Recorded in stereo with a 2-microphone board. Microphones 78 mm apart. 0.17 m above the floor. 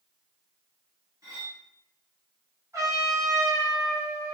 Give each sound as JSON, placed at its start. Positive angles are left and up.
{"t": 1.2, "sound": "cutlery clinking", "side_deg": -50, "distance_m": 1.4}
{"t": 2.7, "sound": "a trumpet", "side_deg": -40, "distance_m": 2.0}